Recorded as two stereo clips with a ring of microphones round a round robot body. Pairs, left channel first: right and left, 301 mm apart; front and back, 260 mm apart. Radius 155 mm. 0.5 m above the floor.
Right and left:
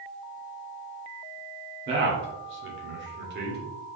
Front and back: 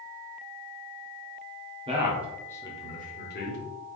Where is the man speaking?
125° left, 1.1 m; by 3.6 s 35° left, 1.6 m.